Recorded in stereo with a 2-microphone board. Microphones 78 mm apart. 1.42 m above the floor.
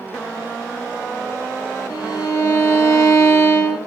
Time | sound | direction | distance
1.9 | a violin | 55° left (ahead or behind) | 2.0 m